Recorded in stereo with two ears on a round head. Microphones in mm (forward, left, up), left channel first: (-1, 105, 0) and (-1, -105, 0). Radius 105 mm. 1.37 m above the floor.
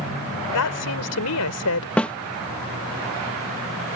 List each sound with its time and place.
0.5 s a woman speaking: 75° left (ahead or behind)
2.0 s a snare drum: 5° left (ahead or behind)